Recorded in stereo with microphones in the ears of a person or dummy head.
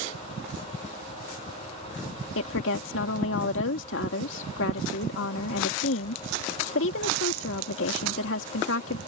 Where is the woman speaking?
70° left (ahead or behind).